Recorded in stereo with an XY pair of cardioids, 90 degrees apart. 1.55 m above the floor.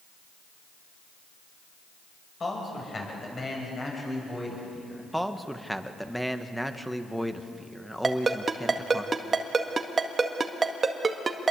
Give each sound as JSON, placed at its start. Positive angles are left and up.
{"t": 2.4, "sound": "a man speaking", "azimuth_deg": 40, "distance_m": 7.0}
{"t": 5.1, "sound": "a man speaking", "azimuth_deg": 0, "distance_m": 1.7}
{"t": 8.0, "sound": "a ringtone", "azimuth_deg": -35, "distance_m": 1.9}